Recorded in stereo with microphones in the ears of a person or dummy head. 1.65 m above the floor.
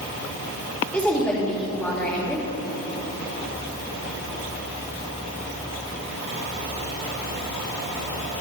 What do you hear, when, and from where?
0.9 s a woman speaking: 5° left (ahead or behind), 3 m